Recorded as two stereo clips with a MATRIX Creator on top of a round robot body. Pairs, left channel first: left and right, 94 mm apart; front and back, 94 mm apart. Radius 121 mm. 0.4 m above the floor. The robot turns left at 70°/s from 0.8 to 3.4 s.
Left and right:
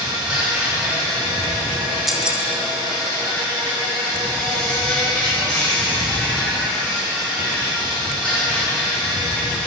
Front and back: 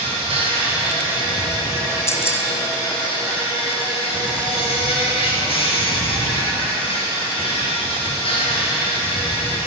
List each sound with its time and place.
0.0 s an insect: 165° right, 1.9 m; by 9.7 s 15° left, 1.9 m
2.1 s keys jangling: straight ahead, 0.7 m; by 2.4 s 25° right, 0.7 m